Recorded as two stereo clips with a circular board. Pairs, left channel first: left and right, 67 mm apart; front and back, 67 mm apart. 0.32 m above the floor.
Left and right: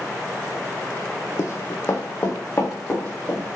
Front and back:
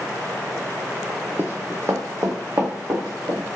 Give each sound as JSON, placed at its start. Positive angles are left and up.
{"t": 1.4, "sound": "running footsteps", "azimuth_deg": 120, "distance_m": 0.6}